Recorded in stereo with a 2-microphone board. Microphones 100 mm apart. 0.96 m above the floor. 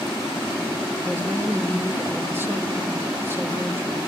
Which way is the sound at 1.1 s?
25° right (ahead or behind).